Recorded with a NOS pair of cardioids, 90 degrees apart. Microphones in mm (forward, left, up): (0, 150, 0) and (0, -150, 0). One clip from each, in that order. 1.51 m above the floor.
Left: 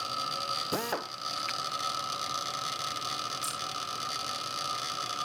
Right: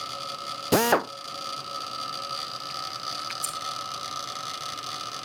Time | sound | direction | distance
0.7 | a drill | 50° right | 0.5 m
3.4 | scissors | 45° right | 8 m